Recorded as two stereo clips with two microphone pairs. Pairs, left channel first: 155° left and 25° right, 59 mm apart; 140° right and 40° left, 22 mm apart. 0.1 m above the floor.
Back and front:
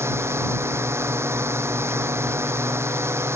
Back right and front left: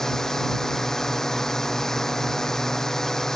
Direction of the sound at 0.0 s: 70° right.